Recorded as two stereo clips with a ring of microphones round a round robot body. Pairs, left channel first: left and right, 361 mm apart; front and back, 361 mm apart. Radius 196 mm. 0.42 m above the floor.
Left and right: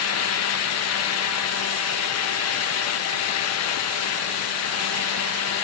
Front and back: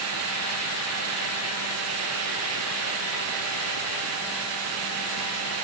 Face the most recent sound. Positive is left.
No sound to turn to.